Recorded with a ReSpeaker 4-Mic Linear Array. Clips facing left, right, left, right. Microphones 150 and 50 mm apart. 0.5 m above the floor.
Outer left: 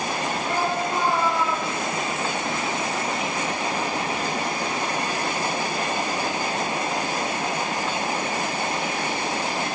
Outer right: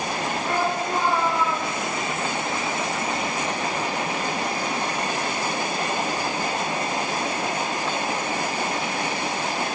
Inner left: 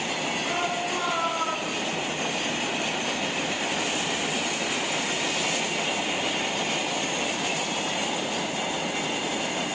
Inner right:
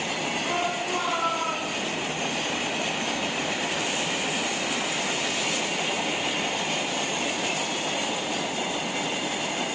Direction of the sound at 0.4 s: 45° right (ahead or behind).